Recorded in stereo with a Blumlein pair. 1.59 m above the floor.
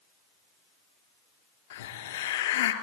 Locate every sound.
1.7 s a hiss: 55° left, 3.5 m